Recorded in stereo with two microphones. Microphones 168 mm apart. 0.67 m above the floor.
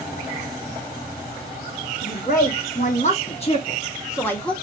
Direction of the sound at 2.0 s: 55° left (ahead or behind).